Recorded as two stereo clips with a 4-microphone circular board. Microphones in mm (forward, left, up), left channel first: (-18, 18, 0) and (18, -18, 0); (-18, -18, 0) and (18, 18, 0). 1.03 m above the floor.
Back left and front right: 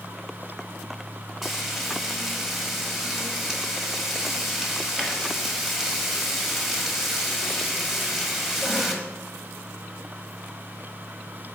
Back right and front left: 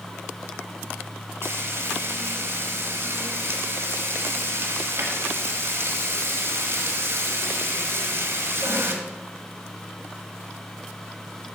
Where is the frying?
40° left, 1.3 m.